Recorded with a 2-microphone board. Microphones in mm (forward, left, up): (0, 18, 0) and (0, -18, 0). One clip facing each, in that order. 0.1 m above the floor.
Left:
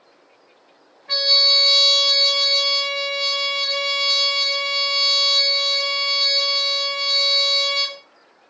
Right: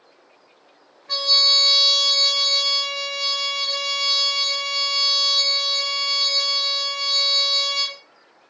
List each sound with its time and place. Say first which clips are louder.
1.1 s a trumpet: left 1 dB; 30° left (ahead or behind), 0.8 m